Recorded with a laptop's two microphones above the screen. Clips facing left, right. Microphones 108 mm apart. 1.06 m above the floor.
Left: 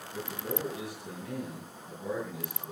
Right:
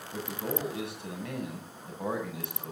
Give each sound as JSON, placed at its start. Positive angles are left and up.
{"t": 0.1, "sound": "a man speaking", "side_deg": -75, "distance_m": 8.0}